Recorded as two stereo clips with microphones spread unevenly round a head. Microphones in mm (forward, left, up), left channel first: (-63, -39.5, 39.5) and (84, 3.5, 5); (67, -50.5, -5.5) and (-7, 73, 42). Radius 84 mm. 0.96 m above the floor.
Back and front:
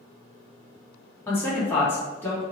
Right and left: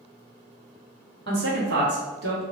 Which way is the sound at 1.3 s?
115° left.